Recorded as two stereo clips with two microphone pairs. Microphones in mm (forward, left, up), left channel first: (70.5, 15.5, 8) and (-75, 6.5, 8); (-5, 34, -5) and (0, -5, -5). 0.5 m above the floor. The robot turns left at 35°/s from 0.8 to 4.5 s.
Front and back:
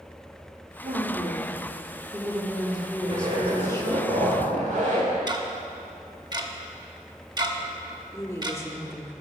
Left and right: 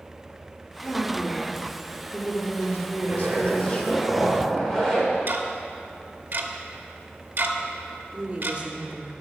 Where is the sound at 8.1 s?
55° right, 0.8 m.